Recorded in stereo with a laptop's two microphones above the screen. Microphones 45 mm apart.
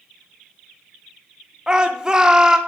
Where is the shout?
20° right (ahead or behind), 0.8 m.